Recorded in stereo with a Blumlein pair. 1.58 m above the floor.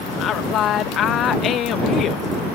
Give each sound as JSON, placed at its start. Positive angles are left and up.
{"t": 0.2, "sound": "a woman speaking", "azimuth_deg": 30}